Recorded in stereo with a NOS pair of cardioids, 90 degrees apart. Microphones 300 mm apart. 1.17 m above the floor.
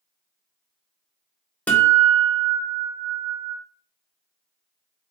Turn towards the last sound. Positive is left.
turn(degrees=5)